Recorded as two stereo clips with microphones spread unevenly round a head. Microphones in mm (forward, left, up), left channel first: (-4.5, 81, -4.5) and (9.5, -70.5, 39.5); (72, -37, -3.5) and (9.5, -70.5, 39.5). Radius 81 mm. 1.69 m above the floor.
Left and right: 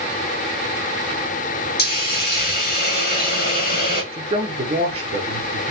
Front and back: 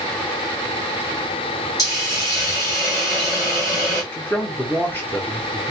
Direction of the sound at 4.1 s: 50° right.